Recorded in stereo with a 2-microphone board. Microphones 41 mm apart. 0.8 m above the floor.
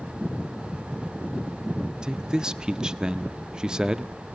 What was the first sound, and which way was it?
A man speaking, 20° right (ahead or behind).